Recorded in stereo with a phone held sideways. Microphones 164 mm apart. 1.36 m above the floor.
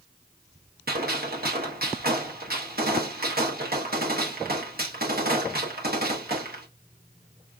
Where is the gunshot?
65° right (ahead or behind), 1.1 m.